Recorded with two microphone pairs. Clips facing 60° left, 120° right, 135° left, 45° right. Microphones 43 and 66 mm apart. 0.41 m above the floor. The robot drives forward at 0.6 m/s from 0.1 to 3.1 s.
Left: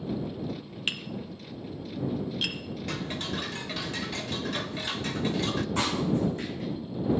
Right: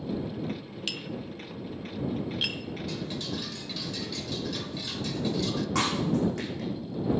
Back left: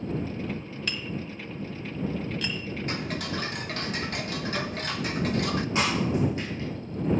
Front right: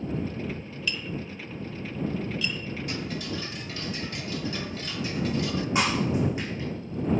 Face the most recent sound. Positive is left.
turn(degrees=-120)